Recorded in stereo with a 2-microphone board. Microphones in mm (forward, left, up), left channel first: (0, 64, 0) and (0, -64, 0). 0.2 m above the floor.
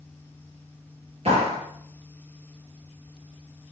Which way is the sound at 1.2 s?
50° right (ahead or behind).